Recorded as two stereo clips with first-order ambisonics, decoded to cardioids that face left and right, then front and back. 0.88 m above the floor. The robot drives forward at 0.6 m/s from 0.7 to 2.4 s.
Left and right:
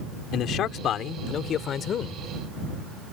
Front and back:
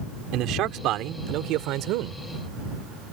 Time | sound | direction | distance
0.3 | a man speaking | 140° left | ?